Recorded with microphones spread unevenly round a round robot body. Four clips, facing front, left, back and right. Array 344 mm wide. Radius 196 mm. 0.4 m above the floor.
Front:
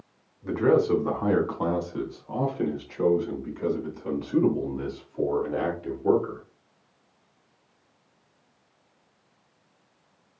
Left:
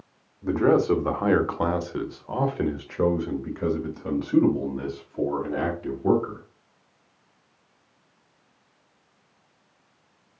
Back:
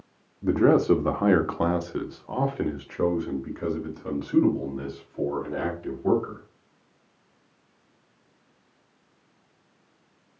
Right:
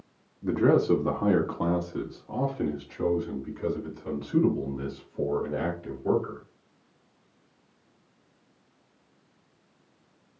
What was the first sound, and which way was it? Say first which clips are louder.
A man speaking: left 2 dB, back 2 dB; straight behind.